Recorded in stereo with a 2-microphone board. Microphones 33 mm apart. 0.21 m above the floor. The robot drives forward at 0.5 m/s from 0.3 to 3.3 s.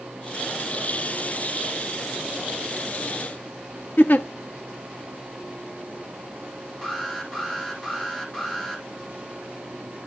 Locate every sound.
4.0 s a giggle: 65° left (ahead or behind), 0.6 m
6.8 s an alarm: 25° left (ahead or behind), 5 m